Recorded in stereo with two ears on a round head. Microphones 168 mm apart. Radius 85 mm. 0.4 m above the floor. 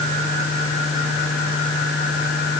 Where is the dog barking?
No dog barking in this recording.